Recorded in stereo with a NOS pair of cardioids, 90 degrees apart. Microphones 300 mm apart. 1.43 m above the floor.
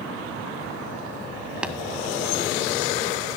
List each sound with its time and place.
1.6 s tapping: 5° right, 1.6 m